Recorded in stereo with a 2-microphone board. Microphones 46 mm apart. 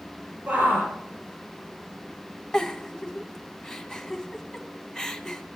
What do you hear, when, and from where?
0.5 s a shout: 35° right (ahead or behind), 6 m
2.5 s a giggle: 15° left (ahead or behind), 1.2 m